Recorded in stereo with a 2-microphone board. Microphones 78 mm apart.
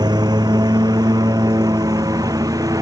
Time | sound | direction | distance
0.0 | a lawn mower | 55° right (ahead or behind) | ?